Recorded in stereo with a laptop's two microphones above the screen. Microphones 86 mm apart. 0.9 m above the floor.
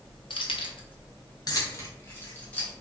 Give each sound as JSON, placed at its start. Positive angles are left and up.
{"t": 0.3, "sound": "keys jangling", "side_deg": 85, "distance_m": 0.9}